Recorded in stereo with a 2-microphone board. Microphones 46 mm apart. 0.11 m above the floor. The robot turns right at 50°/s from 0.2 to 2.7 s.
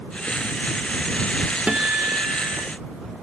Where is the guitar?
160° right; by 2.7 s 110° right.